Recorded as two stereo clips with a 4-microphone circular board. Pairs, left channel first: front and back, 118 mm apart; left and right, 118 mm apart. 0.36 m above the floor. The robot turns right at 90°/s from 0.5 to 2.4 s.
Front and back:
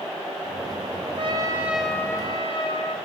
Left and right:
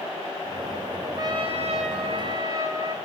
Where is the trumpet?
150° right, 2.0 m; by 3.0 s 35° right, 2.0 m.